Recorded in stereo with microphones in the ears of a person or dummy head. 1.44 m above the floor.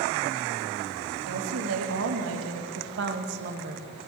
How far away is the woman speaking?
About 3.5 m.